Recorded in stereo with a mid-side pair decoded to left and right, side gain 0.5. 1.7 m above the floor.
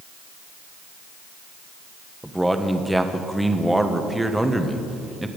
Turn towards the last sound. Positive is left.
turn(degrees=-5)